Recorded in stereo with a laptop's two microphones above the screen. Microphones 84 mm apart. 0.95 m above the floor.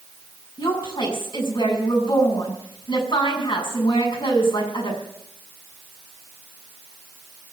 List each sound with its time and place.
0.6 s a woman speaking: 75° left (ahead or behind), 6.5 m